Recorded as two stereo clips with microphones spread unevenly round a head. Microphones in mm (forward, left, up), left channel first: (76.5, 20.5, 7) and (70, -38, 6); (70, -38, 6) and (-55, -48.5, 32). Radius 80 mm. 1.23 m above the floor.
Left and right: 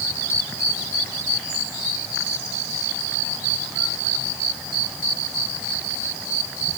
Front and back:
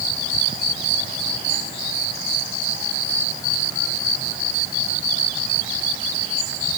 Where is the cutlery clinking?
I don't hear cutlery clinking.